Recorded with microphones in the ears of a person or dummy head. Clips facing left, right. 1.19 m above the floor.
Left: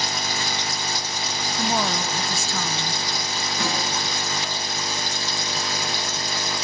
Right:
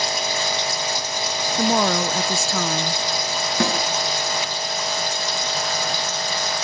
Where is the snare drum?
65° right (ahead or behind), 5 m.